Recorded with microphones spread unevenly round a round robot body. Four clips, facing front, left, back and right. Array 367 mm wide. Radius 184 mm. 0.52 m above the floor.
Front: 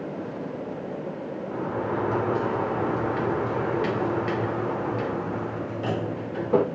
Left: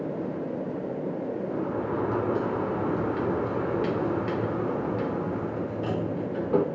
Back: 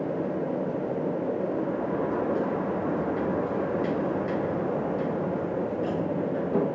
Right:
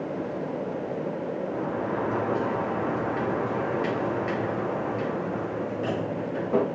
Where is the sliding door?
40° left, 1.7 m.